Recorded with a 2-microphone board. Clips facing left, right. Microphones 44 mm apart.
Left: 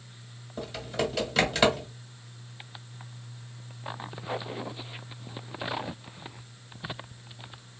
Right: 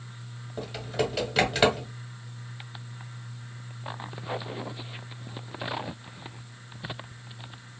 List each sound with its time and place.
0.6 s typing on a keyboard: 10° right (ahead or behind), 1.4 m